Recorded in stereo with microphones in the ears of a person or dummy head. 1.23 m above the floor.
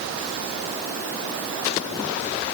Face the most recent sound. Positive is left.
No sound to turn to.